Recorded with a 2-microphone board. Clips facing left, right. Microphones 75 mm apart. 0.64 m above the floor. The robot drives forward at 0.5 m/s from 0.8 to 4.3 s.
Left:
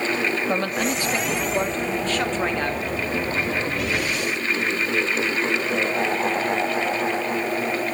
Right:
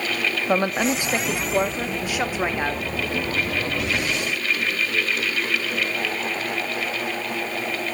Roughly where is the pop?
No pop in this recording.